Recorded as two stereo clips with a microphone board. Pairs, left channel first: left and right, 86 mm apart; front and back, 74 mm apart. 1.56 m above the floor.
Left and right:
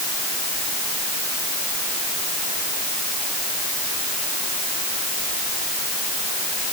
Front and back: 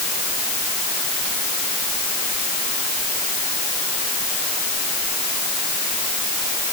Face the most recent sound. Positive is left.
No sound to turn to.